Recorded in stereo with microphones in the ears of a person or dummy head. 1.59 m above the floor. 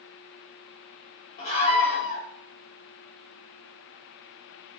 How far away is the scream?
About 3.5 m.